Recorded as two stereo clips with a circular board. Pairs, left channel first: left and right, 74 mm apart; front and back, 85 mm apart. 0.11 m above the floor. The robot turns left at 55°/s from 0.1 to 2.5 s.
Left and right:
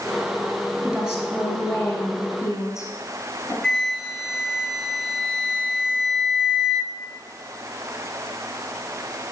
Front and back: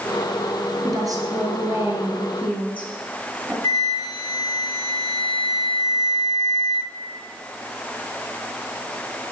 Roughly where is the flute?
Ahead.